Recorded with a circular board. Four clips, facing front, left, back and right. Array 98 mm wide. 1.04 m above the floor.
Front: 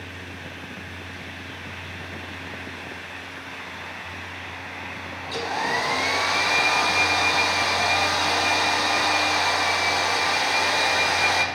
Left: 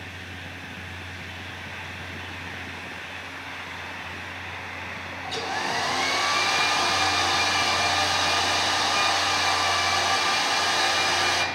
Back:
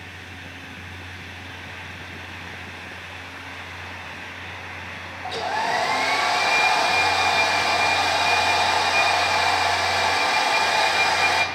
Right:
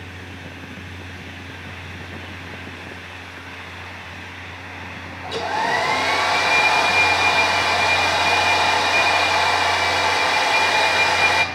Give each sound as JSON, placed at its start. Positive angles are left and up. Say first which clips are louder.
{"t": 5.2, "sound": "a hair dryer", "louder": "right 7 dB, back 3 dB", "azimuth_deg": -85, "distance_m": 1.9}